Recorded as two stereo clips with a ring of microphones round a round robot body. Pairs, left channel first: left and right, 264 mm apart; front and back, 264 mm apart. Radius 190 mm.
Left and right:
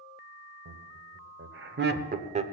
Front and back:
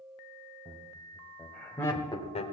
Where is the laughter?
105° right, 1.4 m; by 2.4 s 45° right, 0.9 m.